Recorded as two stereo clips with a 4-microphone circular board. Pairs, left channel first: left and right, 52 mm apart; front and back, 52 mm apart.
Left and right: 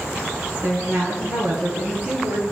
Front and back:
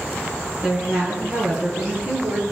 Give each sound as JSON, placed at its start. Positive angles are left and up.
{"t": 0.6, "sound": "a woman speaking", "azimuth_deg": -115, "distance_m": 6.0}